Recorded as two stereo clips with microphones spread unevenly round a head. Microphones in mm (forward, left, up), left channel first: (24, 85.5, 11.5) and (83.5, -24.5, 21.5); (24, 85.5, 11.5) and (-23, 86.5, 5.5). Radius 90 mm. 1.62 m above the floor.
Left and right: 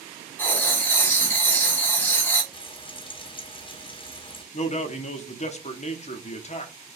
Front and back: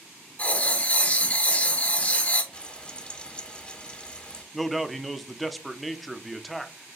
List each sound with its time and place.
0.4 s writing: 45° left, 1.0 m
2.5 s frying: 70° left, 0.8 m
4.5 s a man speaking: 90° left, 0.7 m